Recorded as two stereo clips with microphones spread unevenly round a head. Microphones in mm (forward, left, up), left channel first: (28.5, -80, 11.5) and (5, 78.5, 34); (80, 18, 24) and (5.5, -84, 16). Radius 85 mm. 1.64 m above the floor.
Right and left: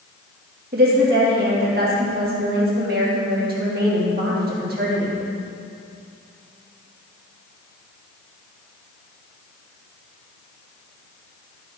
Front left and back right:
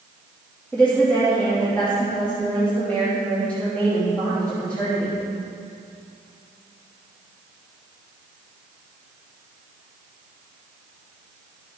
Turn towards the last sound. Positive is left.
turn(degrees=135)